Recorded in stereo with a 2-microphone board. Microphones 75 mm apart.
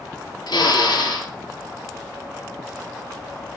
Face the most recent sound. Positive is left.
turn(degrees=75)  # may be behind; listen again after turning